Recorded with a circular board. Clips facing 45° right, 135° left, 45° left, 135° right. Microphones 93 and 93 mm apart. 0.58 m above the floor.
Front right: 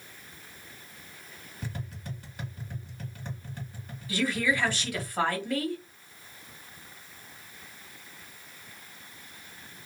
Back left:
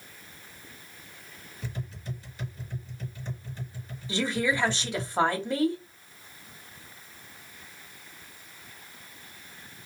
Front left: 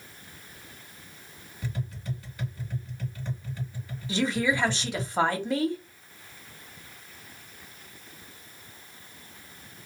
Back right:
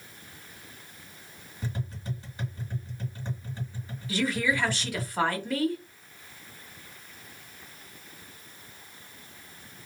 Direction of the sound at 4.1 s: 90° left.